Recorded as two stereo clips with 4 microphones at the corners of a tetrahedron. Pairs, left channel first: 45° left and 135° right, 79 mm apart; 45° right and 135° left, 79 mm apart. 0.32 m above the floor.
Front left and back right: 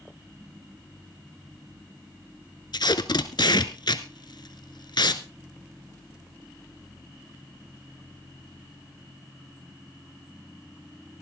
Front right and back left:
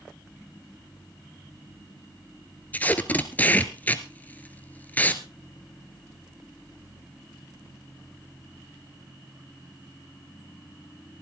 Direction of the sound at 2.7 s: 25° left.